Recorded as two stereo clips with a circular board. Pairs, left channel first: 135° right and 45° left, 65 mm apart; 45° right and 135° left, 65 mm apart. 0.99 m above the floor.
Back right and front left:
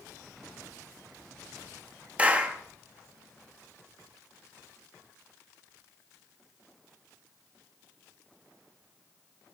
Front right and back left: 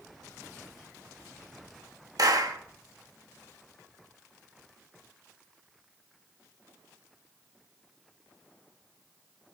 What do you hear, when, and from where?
2.2 s a clap: 115° left, 1.3 m